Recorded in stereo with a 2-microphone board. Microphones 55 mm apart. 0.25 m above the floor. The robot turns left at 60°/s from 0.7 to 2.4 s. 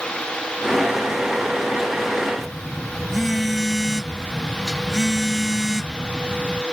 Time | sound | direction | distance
2.4 | a phone buzzing | centre (ahead or behind) | ?